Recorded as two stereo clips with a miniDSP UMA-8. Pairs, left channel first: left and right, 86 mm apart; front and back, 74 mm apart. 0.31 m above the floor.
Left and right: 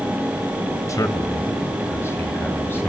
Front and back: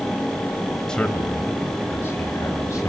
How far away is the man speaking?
About 1.5 m.